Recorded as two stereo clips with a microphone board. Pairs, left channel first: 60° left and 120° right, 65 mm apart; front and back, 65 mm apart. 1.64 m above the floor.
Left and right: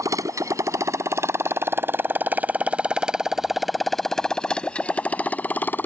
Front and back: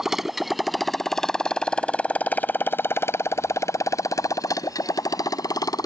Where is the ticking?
I don't hear ticking.